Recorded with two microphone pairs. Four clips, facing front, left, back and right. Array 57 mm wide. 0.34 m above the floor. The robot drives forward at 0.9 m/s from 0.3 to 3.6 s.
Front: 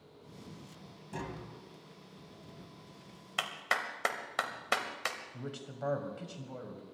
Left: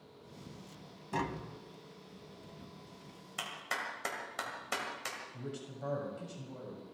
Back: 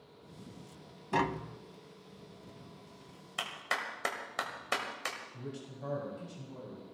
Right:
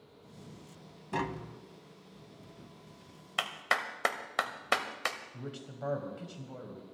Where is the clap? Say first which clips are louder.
Right 7 dB, front 2 dB; 65° right, 1.4 m; by 5.2 s 75° right, 1.4 m.